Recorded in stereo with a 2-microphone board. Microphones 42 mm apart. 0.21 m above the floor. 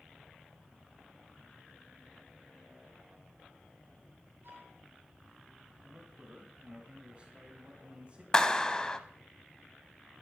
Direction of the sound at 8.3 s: 20° left (ahead or behind).